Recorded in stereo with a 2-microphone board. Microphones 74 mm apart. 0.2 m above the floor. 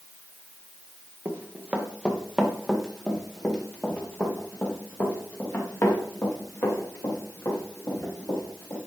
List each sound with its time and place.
1.2 s running footsteps: 25° right (ahead or behind), 1.6 m; by 8.8 s 35° left (ahead or behind), 5 m